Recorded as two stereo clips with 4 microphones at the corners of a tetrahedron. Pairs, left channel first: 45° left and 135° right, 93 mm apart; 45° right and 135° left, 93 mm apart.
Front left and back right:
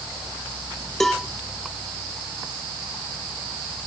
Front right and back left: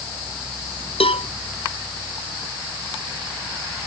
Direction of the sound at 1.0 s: 40° right.